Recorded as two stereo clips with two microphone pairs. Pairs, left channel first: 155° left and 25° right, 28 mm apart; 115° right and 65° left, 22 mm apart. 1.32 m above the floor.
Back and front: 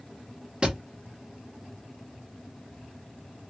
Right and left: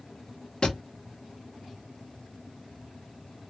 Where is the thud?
70° right, 1.1 m.